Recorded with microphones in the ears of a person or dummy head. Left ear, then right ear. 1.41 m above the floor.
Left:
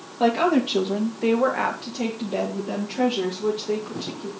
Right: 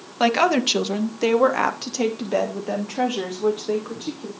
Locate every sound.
0.2 s a woman speaking: 60° right (ahead or behind), 1.7 m; by 4.3 s 25° right (ahead or behind), 2.5 m